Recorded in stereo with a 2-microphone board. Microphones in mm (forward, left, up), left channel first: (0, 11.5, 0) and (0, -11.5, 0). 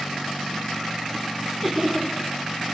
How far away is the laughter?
About 3.5 m.